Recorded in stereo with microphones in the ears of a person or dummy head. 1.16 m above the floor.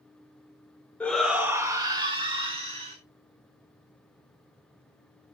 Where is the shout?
10° left (ahead or behind), 0.5 m; by 3.0 s 30° right (ahead or behind), 1.6 m.